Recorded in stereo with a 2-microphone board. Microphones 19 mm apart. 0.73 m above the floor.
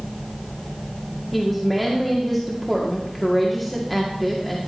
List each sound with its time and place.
1.3 s a woman speaking: 5° left (ahead or behind), 1.7 m